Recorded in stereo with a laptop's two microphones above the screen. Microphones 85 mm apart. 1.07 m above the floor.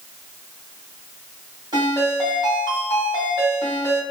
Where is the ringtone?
55° right (ahead or behind), 1.7 m.